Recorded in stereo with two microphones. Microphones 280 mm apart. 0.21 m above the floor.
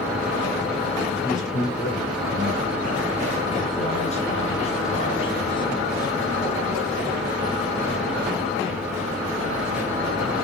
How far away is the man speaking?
About 5 m.